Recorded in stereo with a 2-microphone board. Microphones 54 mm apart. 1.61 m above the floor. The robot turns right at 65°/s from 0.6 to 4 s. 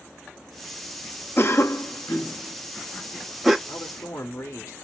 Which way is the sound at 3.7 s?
75° left (ahead or behind).